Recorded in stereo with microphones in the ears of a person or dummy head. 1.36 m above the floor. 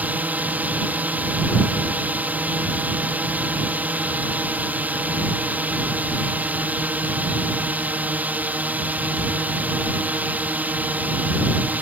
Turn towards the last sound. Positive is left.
turn(degrees=-5)  # may be behind; listen again after turning